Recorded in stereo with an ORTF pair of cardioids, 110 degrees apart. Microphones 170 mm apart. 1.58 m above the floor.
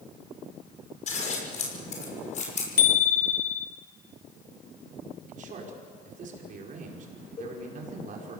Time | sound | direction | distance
1.1 | scissors | 45° left | 6 m
2.8 | a bicycle bell | 55° left | 2.5 m
5.3 | a man speaking | 50° right | 5 m
7.4 | a cowbell | 35° left | 4 m